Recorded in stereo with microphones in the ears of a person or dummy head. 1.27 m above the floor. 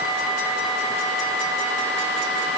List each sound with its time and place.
Only background noise.